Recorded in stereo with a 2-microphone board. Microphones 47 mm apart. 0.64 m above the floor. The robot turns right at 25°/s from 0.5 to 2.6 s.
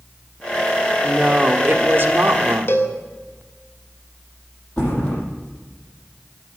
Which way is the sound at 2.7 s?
50° left (ahead or behind).